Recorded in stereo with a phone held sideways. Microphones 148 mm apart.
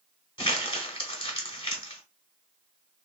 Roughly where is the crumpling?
Left.